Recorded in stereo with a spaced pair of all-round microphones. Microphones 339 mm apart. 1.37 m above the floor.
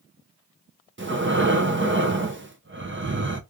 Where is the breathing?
35° right (ahead or behind), 0.7 m.